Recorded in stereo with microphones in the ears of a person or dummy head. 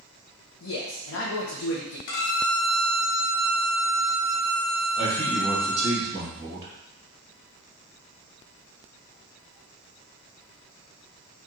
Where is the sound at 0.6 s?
80° left, 0.8 m.